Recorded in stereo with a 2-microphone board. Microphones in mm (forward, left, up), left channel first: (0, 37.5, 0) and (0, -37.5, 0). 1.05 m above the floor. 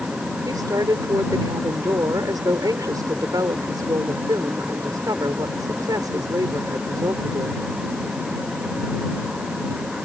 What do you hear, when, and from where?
0.5 s a woman speaking: 55° right (ahead or behind)